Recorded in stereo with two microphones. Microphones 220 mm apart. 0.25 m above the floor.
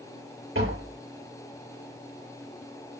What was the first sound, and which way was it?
Tapping, 80° right.